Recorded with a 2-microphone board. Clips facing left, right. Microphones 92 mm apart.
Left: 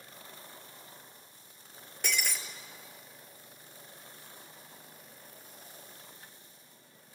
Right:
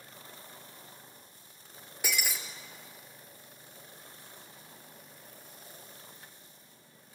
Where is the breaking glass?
5° right (ahead or behind), 2 m.